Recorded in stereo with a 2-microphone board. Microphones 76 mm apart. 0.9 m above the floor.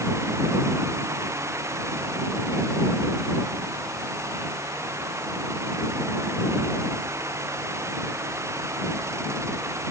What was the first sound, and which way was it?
Only background noise.